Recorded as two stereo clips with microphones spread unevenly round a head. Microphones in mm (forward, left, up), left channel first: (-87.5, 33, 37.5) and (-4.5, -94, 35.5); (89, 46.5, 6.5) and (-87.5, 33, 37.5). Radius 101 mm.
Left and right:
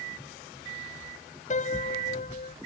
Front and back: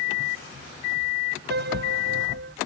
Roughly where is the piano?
Behind.